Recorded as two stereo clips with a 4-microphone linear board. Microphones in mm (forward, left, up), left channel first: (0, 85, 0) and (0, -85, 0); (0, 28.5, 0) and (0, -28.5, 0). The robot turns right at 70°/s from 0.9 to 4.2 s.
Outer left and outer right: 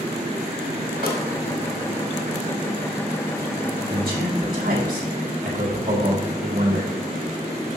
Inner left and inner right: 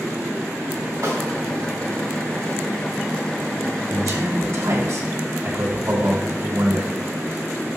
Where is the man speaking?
65° right (ahead or behind), 1.8 m; by 6.9 s 55° right (ahead or behind), 1.8 m.